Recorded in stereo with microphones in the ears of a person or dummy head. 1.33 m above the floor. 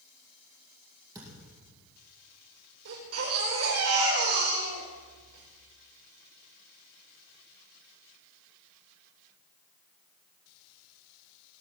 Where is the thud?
20° right (ahead or behind), 5.5 m.